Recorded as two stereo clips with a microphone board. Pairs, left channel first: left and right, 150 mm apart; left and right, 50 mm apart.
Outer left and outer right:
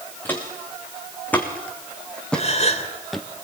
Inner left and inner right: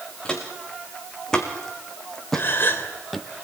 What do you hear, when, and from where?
0.2 s footsteps: 15° left (ahead or behind), 5.5 m; by 3.3 s centre (ahead or behind), 1.9 m
2.3 s a gasp: 50° left (ahead or behind), 3 m